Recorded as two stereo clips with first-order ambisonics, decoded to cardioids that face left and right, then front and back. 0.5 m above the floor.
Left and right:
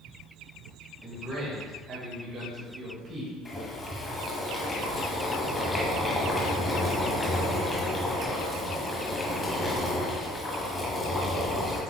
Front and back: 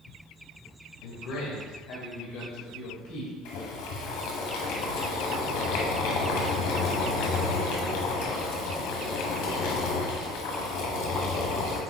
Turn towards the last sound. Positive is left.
turn(degrees=15)